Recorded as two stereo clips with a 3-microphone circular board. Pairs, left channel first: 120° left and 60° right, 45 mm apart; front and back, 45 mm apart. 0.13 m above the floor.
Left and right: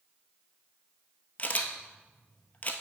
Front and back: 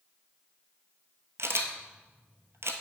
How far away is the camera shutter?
About 0.8 m.